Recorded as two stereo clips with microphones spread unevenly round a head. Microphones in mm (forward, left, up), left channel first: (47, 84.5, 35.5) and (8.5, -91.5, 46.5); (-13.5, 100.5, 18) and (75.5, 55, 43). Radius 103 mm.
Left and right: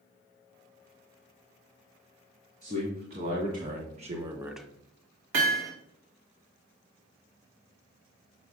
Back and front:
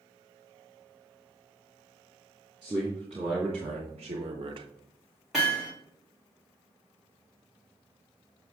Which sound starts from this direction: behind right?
Hammering, at 5.3 s.